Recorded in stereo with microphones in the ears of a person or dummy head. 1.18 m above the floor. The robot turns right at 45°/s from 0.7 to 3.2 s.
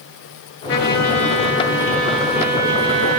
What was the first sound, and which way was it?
A trumpet, 115° left.